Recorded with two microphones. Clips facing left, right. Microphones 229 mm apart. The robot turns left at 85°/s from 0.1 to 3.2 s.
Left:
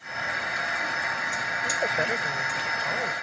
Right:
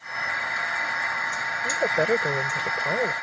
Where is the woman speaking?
10° right; by 3.1 s 140° right.